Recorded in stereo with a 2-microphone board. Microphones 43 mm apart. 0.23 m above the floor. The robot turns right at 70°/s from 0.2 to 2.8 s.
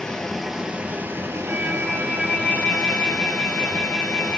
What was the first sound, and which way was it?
Running water, 165° left.